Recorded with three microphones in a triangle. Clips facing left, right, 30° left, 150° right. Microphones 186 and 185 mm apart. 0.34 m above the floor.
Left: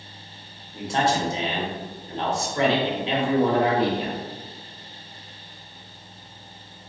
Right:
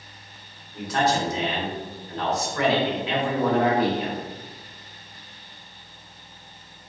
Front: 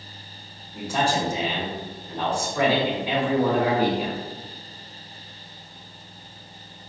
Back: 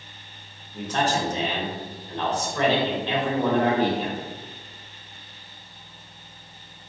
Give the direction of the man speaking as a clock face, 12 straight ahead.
9 o'clock.